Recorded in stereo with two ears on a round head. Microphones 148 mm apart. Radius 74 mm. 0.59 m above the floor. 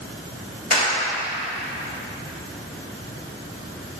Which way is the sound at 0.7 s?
50° left (ahead or behind).